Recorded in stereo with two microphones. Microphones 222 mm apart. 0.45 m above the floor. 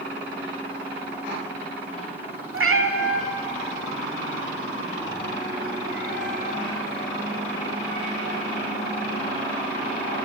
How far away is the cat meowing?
About 0.6 m.